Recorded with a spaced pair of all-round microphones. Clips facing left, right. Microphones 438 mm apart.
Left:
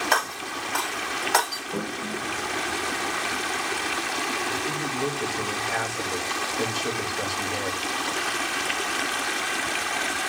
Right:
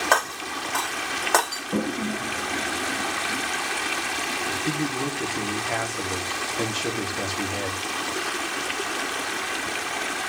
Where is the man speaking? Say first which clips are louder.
Right 3 dB; 85° right, 3.5 m.